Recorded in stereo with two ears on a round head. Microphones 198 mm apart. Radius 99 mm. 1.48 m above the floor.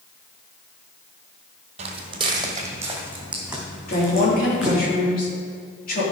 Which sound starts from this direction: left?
A woman speaking, at 3.9 s.